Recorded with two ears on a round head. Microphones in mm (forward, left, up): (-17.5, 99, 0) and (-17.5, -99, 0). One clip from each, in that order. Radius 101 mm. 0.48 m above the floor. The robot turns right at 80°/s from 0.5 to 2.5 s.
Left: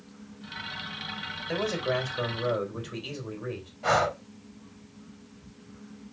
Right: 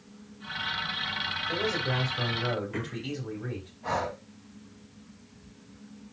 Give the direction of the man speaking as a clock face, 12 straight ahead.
9 o'clock.